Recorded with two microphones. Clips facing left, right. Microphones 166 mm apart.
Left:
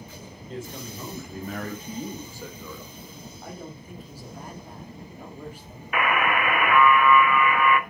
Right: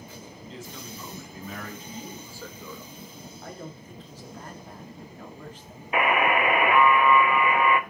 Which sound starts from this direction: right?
A buzzer, at 5.9 s.